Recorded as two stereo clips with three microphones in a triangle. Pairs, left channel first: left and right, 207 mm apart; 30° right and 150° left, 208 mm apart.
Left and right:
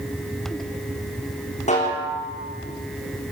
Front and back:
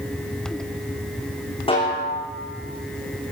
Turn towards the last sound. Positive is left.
turn(degrees=35)